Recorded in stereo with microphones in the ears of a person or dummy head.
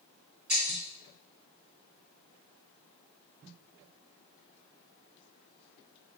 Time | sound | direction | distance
0.5 | breaking glass | 50° right (ahead or behind) | 3 m